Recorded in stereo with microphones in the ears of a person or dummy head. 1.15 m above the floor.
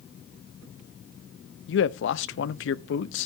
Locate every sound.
1.7 s a man speaking: 60° left (ahead or behind), 0.6 m